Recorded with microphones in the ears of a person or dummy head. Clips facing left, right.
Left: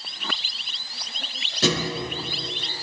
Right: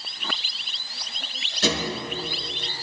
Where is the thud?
80° left, 7 m.